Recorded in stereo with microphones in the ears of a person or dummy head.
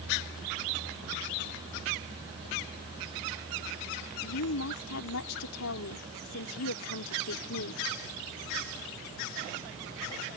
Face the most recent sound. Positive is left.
turn(degrees=75)  # may be behind; listen again after turning